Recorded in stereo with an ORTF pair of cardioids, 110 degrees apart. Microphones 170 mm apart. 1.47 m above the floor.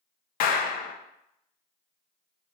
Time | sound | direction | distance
0.4 | a clap | 60° left | 0.5 m